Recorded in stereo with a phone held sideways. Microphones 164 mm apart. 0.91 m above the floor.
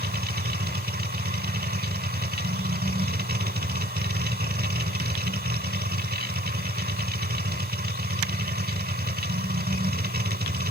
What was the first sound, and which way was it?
A machine running, 70° right (ahead or behind).